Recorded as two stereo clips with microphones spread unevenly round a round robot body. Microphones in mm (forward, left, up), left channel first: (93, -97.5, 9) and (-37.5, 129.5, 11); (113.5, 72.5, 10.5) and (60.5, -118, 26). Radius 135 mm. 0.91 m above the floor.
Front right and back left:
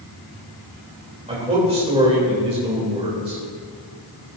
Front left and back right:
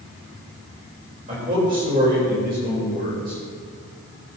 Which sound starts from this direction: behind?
A man speaking, at 1.3 s.